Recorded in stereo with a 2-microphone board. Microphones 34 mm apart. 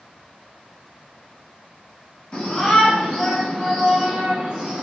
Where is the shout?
20° left (ahead or behind), 1.2 m; by 4.8 s 35° right (ahead or behind), 1.3 m.